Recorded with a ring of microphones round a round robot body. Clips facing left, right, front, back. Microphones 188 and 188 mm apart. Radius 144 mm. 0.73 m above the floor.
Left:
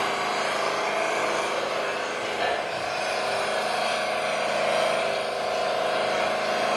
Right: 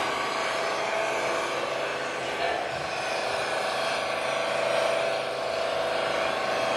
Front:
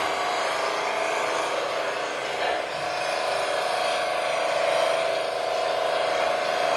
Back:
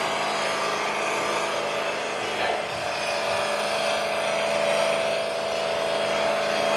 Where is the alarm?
No alarm in this recording.